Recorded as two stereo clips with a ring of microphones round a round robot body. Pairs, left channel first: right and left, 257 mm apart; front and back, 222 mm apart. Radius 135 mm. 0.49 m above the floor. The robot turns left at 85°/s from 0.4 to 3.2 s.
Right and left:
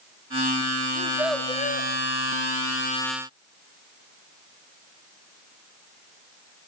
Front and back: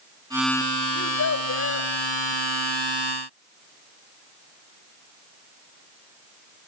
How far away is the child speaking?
About 1.6 m.